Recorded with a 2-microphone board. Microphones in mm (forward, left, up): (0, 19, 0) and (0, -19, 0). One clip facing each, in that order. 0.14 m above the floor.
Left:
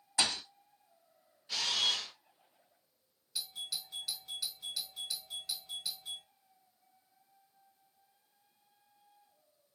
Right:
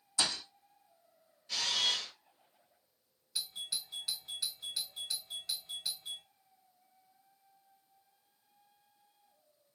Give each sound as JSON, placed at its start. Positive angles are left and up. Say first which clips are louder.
{"t": 0.2, "sound": "a thud", "louder": "left 2 dB", "side_deg": 60, "distance_m": 1.4}
{"t": 1.5, "sound": "a camera shutter", "louder": "even", "side_deg": 20, "distance_m": 1.6}
{"t": 3.4, "sound": "a doorbell", "louder": "right 1 dB", "side_deg": -10, "distance_m": 1.7}